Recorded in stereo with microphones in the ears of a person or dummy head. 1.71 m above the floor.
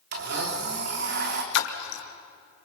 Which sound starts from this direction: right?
A blender, at 0.1 s.